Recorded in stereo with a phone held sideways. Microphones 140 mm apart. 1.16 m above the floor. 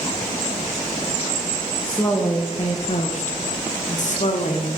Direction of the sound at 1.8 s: 5° left (ahead or behind).